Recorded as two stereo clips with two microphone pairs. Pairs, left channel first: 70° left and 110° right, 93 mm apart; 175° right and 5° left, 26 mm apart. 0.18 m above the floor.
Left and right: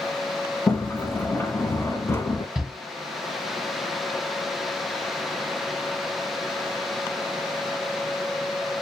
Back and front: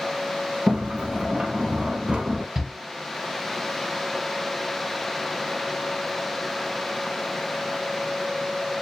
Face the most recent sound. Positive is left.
turn(degrees=-35)